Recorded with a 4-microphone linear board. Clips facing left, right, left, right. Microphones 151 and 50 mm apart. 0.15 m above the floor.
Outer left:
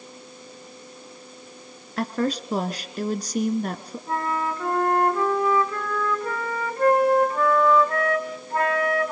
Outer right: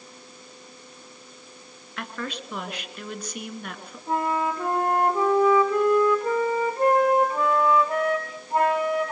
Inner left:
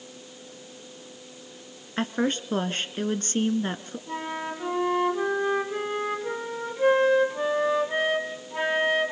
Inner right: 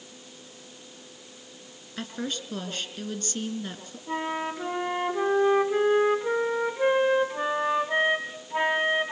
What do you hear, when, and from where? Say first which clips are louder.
2.0 s a woman speaking: outer left 9 dB, inner left 7 dB; 40° left (ahead or behind), 1.8 m
4.1 s a flute: outer right 2 dB, inner right 3 dB; 20° right (ahead or behind), 5 m